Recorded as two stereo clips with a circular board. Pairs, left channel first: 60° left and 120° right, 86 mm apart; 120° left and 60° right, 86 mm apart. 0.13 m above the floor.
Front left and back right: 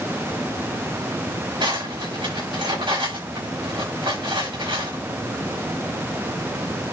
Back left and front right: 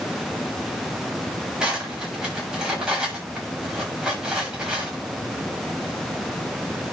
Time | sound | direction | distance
1.6 | cutlery clinking | 140° right | 8 m